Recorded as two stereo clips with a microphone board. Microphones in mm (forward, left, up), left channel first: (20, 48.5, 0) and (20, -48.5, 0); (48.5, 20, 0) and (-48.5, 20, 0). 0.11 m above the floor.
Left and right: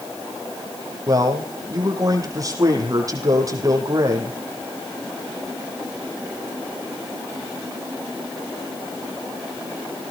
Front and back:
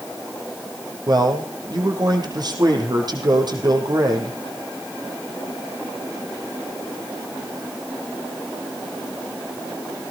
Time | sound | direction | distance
1.1 | a man speaking | 140° right | 4 m